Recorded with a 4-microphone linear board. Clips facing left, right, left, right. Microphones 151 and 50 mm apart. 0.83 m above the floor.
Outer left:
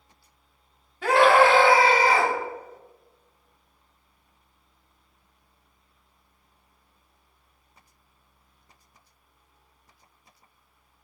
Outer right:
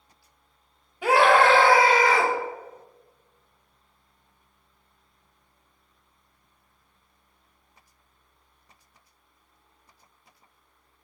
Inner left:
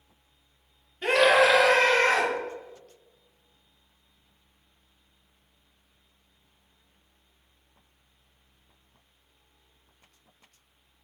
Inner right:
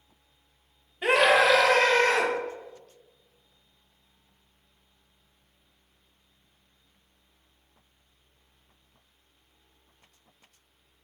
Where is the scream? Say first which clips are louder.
Outer left 1 dB, even; 15° right (ahead or behind), 1.1 m; by 2.3 s 40° left (ahead or behind), 1.8 m.